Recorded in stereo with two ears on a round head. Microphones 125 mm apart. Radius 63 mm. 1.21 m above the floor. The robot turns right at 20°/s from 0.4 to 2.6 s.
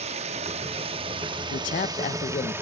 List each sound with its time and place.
0.0 s running water: 65° right, 0.9 m; by 2.6 s 20° right, 0.9 m
1.5 s a man speaking: 65° left (ahead or behind), 0.9 m; by 2.5 s 45° left (ahead or behind), 0.9 m